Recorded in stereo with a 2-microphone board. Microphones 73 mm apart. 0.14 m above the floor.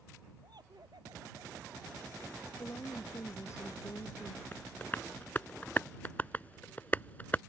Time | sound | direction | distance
0.4 | laughter | 70° right (ahead or behind) | ?
2.6 | a woman speaking | 40° left (ahead or behind) | ?
4.5 | tapping | 25° left (ahead or behind) | ?